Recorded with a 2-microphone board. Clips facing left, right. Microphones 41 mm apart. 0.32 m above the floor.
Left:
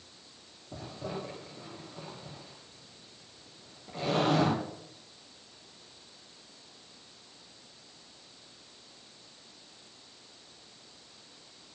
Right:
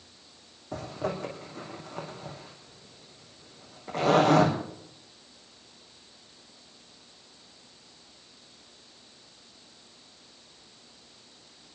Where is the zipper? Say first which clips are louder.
Right 6 dB; 80° right, 4.5 m.